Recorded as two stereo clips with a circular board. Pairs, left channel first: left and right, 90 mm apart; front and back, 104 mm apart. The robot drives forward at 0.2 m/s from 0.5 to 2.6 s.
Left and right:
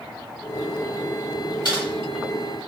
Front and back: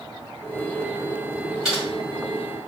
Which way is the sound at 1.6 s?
90° left.